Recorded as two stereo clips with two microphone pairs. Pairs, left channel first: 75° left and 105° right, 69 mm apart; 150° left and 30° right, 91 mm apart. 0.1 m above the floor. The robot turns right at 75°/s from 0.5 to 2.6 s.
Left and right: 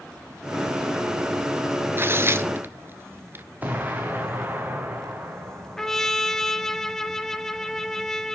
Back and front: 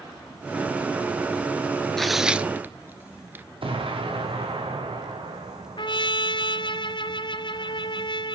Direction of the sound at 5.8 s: 150° left.